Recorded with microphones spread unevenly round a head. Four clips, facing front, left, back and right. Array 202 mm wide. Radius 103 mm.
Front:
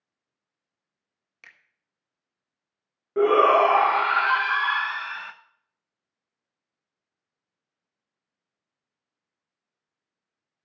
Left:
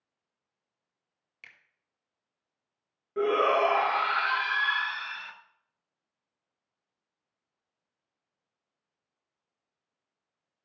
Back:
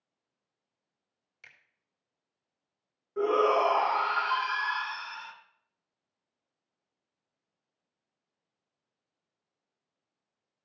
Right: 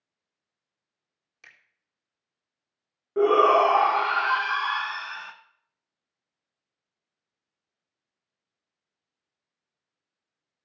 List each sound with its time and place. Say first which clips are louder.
1.4 s a finger snap: right 1 dB, front 5 dB; 5° right, 1.6 m
3.2 s a shout: right 6 dB, front 7 dB; 20° right, 0.8 m